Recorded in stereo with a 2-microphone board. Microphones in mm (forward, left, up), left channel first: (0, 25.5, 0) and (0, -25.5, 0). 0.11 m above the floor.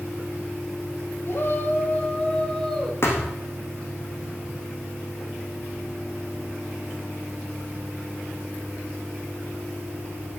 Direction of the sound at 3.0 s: 55° left (ahead or behind).